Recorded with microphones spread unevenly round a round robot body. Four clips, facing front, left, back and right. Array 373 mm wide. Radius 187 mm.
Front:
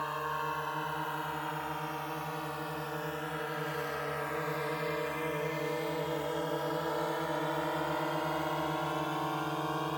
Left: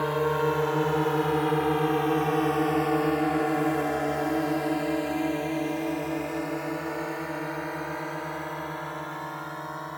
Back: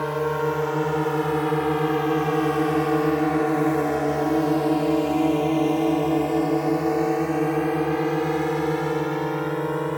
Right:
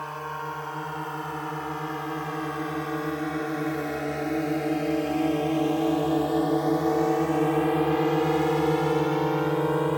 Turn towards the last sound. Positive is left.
turn(degrees=-120)